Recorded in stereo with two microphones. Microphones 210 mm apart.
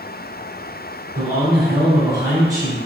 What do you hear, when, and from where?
1.1 s a man speaking: 15° right (ahead or behind), 1.7 m